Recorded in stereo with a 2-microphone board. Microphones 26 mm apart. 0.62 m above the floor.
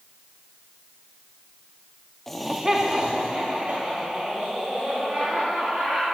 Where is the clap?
No clap in this recording.